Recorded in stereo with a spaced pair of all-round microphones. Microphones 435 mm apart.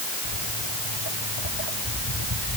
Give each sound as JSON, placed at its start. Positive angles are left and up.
{"t": 0.2, "sound": "footsteps", "side_deg": 70}